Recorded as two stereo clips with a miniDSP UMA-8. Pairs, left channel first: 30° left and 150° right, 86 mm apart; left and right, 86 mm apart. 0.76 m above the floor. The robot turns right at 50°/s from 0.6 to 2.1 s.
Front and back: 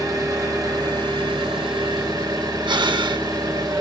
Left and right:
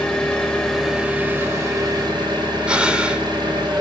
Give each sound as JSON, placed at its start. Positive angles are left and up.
{"t": 0.0, "sound": "an engine running", "azimuth_deg": 170, "distance_m": 3.0}
{"t": 2.7, "sound": "breathing", "azimuth_deg": -170, "distance_m": 0.7}